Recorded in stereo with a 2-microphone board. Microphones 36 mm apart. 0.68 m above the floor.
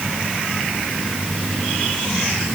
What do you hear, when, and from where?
Only background noise.